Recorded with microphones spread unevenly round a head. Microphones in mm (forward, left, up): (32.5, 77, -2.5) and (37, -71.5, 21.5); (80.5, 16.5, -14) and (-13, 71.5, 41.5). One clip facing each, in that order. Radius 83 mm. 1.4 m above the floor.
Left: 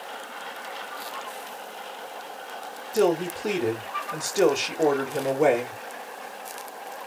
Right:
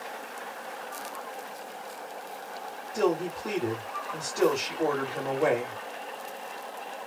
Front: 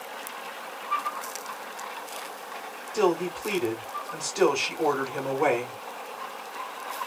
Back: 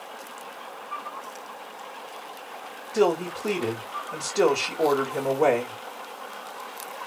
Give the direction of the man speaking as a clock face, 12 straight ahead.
9 o'clock.